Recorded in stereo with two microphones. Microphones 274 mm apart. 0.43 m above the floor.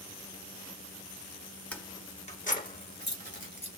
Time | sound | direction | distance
1.7 | keys jangling | 5° left (ahead or behind) | 1.0 m